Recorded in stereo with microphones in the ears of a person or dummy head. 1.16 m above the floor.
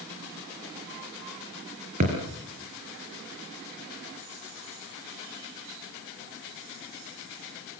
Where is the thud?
40° right (ahead or behind), 4.5 m.